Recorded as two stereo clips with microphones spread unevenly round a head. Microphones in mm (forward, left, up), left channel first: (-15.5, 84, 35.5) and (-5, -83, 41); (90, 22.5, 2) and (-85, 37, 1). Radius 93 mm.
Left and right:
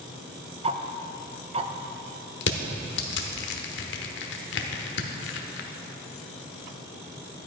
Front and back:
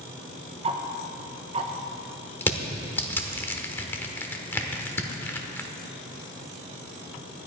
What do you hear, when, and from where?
0.6 s ticking: 135° right, 0.7 m
2.4 s crushing: 70° left, 1.0 m